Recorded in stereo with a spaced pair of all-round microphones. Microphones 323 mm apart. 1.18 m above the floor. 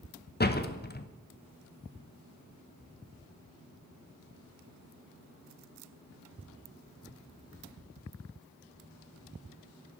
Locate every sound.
0.4 s a door slam: 30° left (ahead or behind), 0.8 m